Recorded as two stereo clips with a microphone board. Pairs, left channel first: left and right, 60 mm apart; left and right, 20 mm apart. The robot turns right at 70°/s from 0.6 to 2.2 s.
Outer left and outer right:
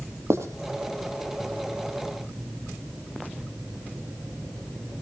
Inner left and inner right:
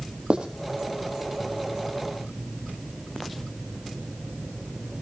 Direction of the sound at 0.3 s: 50° right (ahead or behind).